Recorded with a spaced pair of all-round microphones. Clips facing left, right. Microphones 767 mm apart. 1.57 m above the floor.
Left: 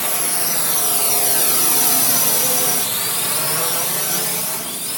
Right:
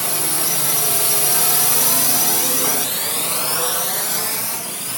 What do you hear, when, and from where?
0.0 s a drone: 65° right (ahead or behind); by 5.0 s 65° left (ahead or behind)